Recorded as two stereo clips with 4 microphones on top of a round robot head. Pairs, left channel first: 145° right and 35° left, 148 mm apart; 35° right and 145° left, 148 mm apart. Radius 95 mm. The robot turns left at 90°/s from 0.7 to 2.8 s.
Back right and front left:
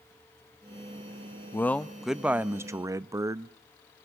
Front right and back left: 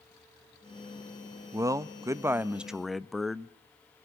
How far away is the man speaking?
About 0.6 m.